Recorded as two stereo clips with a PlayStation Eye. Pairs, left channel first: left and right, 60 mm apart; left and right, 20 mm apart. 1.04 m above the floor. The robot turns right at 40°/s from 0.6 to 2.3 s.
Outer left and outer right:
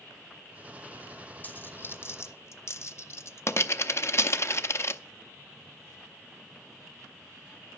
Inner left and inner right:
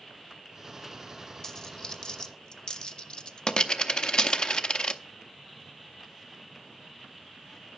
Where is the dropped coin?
30° left (ahead or behind), 0.6 m; by 5.0 s 50° left (ahead or behind), 0.6 m.